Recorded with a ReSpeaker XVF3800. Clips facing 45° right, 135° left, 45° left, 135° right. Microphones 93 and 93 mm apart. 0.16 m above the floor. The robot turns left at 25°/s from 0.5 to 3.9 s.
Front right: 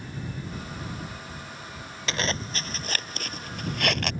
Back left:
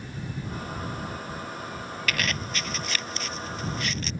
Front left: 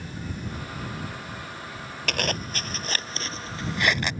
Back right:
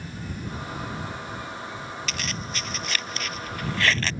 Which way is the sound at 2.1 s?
20° left.